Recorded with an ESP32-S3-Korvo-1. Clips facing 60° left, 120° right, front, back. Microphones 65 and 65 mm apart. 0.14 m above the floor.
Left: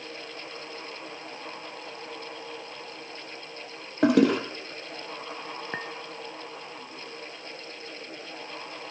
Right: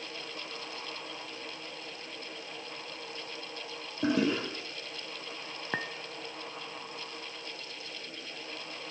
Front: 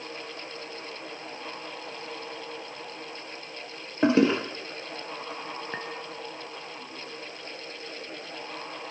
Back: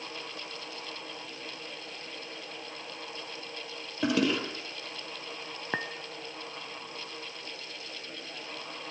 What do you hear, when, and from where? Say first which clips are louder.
4.0 s a toilet flushing: left 8 dB, front 6 dB; 55° left, 2.5 m
5.7 s a clink: right 2 dB, back 6 dB; 165° left, 1.2 m